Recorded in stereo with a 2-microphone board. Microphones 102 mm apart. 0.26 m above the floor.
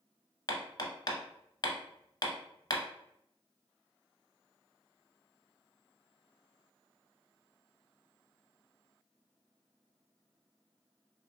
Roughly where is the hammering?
Left.